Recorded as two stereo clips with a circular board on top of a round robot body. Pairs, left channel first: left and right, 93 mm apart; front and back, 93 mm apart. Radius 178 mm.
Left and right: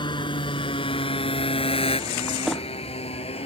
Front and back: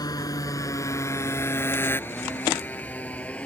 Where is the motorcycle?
50° left; by 3.5 s 75° left.